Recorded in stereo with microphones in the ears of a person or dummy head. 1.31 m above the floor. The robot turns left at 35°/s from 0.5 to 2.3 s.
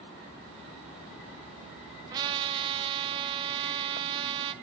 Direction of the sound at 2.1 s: 25° right (ahead or behind).